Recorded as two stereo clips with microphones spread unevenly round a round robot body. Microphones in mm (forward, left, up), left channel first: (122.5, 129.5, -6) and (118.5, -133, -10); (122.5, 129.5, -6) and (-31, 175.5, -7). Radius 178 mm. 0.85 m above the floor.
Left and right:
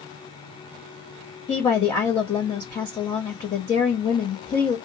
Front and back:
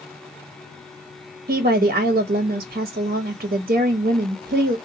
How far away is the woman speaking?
About 0.7 m.